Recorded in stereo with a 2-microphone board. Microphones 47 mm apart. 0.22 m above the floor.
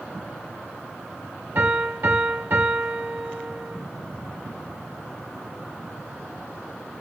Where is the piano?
60° right (ahead or behind), 2 m.